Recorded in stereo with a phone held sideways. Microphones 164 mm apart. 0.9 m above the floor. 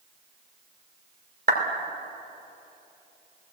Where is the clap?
85° right, 2.5 m.